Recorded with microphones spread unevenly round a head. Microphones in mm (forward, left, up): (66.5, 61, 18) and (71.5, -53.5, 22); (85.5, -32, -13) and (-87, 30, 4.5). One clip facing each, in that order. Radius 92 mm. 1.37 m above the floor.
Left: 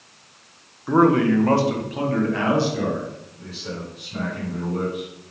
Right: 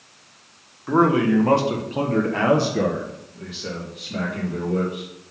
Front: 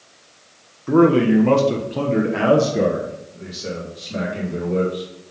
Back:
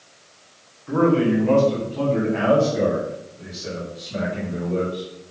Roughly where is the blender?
I don't hear a blender.